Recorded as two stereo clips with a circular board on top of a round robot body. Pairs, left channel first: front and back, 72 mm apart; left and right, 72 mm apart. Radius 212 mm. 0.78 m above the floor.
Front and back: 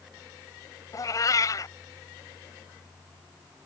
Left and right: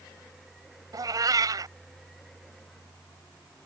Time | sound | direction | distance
0.9 | a cat meowing | 45° right | ?